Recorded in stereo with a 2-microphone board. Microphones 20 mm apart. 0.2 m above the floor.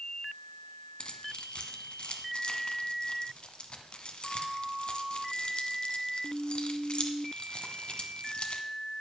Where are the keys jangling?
45° left (ahead or behind), 1.3 m.